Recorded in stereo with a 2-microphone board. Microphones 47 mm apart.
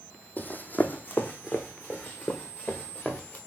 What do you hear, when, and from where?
0.4 s running footsteps: 40° left (ahead or behind), 0.6 m; by 3.4 s 35° left (ahead or behind), 2.5 m